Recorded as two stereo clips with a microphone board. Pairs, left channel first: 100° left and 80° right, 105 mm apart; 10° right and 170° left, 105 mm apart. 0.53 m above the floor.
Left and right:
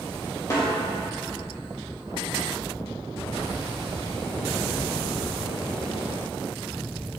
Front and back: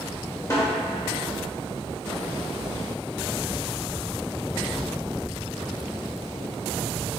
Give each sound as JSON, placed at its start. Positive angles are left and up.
{"t": 0.5, "sound": "a snare drum", "azimuth_deg": 45, "distance_m": 2.0}